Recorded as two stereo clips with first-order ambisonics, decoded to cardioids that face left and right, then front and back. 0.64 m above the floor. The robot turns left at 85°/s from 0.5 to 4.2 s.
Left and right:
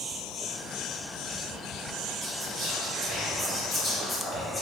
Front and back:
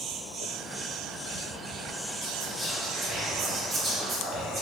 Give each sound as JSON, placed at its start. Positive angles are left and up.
{"t": 2.2, "sound": "whispering", "azimuth_deg": -20, "distance_m": 0.5}